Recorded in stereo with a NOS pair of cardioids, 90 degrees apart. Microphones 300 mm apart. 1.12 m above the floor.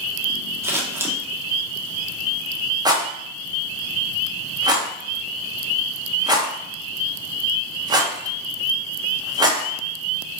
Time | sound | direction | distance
0.6 | scissors | 10° right | 0.7 m
2.9 | a rattle | 15° right | 0.6 m